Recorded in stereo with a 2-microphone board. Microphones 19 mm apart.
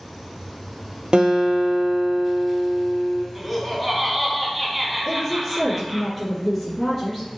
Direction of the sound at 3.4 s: 5° right (ahead or behind).